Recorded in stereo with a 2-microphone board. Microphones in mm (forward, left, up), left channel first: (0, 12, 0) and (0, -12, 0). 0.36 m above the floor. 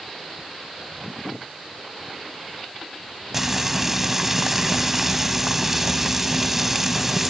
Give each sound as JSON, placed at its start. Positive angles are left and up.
{"t": 3.3, "sound": "frying", "side_deg": -15, "distance_m": 1.2}